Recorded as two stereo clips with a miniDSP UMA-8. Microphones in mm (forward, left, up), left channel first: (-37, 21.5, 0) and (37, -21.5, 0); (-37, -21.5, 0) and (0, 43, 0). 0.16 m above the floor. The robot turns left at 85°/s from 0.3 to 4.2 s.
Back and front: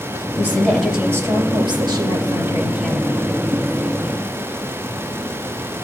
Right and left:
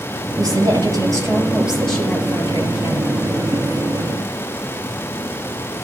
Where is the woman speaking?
95° left, 3.5 m; by 3.2 s 145° right, 3.5 m.